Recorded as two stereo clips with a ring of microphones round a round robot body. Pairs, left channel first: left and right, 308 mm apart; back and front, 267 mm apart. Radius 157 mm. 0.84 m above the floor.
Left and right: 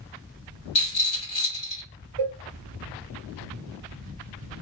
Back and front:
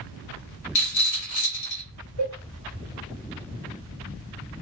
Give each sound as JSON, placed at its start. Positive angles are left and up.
{"t": 0.8, "sound": "a rattle", "azimuth_deg": 160, "distance_m": 2.0}
{"t": 2.2, "sound": "a cowbell", "azimuth_deg": -120, "distance_m": 0.5}